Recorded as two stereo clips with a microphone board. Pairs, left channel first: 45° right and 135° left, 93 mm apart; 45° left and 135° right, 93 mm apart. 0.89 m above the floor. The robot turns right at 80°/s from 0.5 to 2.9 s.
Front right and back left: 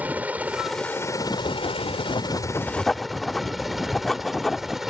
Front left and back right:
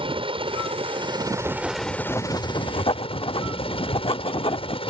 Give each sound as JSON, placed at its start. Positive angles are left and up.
{"t": 0.0, "sound": "a helicopter", "azimuth_deg": -150}
{"t": 1.4, "sound": "writing", "azimuth_deg": -80}